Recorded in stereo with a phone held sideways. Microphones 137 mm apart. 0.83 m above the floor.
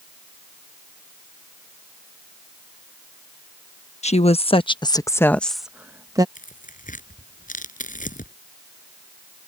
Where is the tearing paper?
75° left (ahead or behind).